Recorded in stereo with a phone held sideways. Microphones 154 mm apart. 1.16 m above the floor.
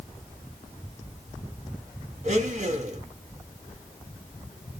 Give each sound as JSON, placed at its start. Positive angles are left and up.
{"t": 2.2, "sound": "a blender", "side_deg": -45, "distance_m": 1.0}